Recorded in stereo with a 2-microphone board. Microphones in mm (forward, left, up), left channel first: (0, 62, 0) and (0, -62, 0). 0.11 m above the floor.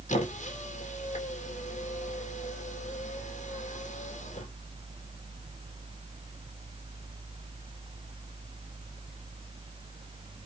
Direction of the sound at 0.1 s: 80° left.